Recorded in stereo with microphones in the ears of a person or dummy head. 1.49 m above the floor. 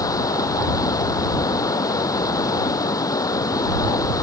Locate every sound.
0.0 s running water: 25° left (ahead or behind)